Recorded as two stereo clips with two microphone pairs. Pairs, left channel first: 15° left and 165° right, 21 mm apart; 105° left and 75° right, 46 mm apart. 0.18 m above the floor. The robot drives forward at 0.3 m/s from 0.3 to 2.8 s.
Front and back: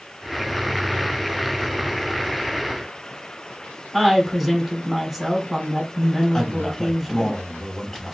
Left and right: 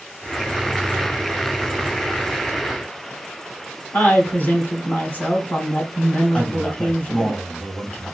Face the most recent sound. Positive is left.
turn(degrees=65)